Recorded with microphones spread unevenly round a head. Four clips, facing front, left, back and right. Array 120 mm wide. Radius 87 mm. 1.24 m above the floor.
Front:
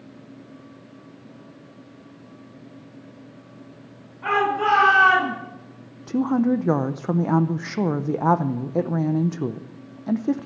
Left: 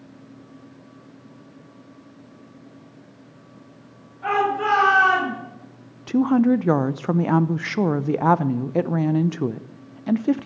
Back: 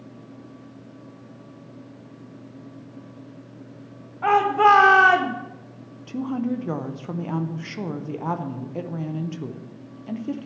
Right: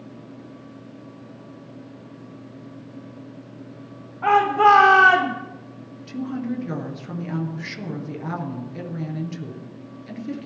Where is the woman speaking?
45° left, 0.7 m.